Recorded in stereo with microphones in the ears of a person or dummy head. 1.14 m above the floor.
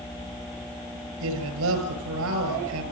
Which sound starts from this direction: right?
A man speaking, at 1.2 s.